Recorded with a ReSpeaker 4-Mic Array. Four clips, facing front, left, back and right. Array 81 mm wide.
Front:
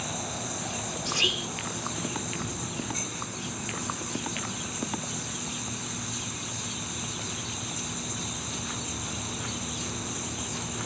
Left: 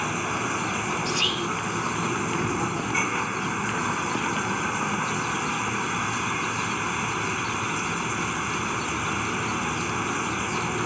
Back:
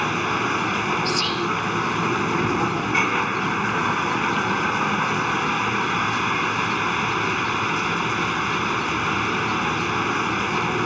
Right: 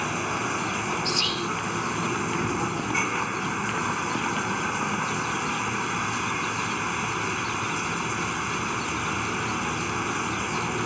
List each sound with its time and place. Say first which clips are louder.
0.0 s running water: even, back 13 dB; straight behind
1.1 s whispering: left 1 dB, back 9 dB; 45° left